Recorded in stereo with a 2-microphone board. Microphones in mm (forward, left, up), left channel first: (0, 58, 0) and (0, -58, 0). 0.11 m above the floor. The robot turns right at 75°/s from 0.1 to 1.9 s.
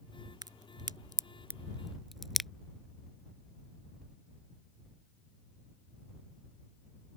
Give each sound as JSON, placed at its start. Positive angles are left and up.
{"t": 0.4, "sound": "a crack", "side_deg": -35}